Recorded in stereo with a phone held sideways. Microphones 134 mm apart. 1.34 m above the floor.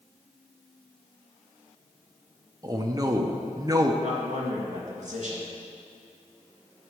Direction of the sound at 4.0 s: 60° right (ahead or behind).